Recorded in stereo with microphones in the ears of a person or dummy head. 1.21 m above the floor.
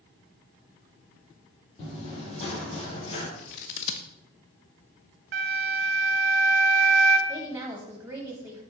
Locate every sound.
1.8 s running footsteps: 35° left (ahead or behind), 2.5 m
3.4 s scissors: 35° left (ahead or behind), 0.6 m
5.3 s a flute: 50° right (ahead or behind), 0.9 m
7.3 s a woman speaking: 10° right (ahead or behind), 1.0 m